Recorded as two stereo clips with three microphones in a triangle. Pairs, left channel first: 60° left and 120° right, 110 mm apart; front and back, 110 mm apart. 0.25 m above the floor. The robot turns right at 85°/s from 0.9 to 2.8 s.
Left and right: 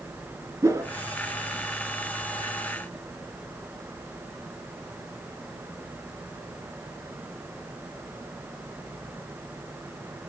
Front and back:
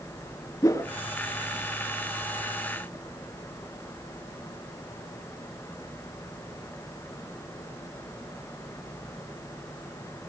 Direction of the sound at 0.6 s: 60° right.